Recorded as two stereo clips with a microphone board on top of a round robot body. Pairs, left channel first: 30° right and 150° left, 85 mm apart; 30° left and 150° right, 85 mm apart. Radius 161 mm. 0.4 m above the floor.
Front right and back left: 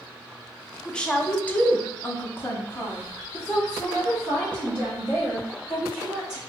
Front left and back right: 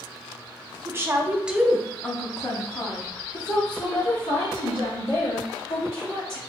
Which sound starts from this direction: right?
A woman speaking, at 0.8 s.